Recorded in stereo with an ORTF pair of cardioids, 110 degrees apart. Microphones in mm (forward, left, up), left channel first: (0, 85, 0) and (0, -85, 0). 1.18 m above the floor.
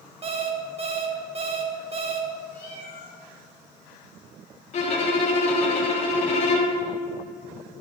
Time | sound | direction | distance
0.2 | an alarm clock | 35° right | 1.7 m
2.5 | a cat meowing | 60° left | 3 m
4.7 | a violin | 45° left | 3 m